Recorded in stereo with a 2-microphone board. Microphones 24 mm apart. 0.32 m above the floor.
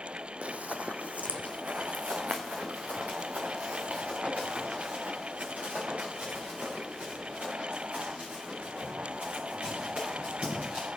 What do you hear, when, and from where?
0.4 s running footsteps: 65° right (ahead or behind), 0.7 m